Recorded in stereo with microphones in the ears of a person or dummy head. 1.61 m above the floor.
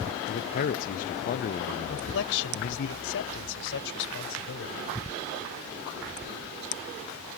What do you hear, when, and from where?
0.3 s a man speaking: 45° left (ahead or behind)
1.9 s a man speaking: 75° left (ahead or behind)